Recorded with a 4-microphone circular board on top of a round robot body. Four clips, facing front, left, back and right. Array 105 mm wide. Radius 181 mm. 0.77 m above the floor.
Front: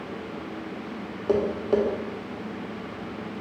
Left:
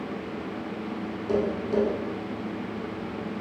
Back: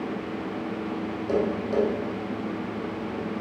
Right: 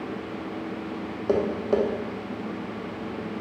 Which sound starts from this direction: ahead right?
Tapping, at 1.3 s.